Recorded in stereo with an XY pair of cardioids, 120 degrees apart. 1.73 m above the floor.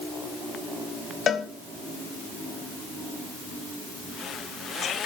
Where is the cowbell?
45° left, 1.8 m.